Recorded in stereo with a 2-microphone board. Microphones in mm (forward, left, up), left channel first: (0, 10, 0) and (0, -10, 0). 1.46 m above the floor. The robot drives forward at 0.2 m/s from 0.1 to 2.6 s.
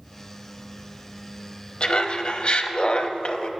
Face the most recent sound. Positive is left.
turn(degrees=55)  # may be behind; listen again after turning